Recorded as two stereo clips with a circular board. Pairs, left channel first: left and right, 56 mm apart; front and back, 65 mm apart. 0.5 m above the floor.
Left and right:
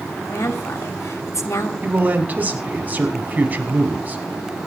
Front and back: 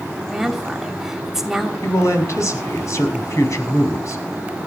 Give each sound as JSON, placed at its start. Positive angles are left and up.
{"t": 0.3, "sound": "a woman speaking", "azimuth_deg": 100, "distance_m": 2.5}
{"t": 1.8, "sound": "a man speaking", "azimuth_deg": -30, "distance_m": 4.5}